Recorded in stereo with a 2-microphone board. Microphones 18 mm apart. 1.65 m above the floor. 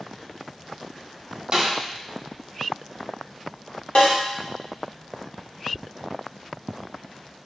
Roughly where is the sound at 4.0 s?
Left.